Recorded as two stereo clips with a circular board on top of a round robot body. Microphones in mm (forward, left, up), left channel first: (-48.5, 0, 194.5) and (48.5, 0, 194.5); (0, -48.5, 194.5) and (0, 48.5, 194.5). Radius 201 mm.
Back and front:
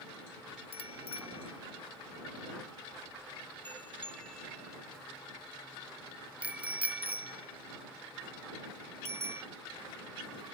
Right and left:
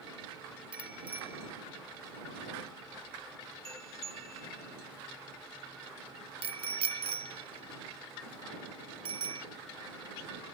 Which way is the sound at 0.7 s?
170° left.